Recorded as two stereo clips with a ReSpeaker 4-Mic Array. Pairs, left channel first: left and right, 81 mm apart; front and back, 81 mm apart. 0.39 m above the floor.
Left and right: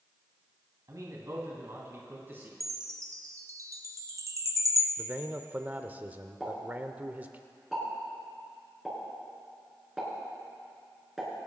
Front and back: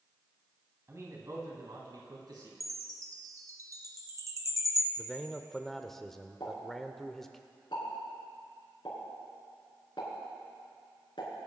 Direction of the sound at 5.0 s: 80° right.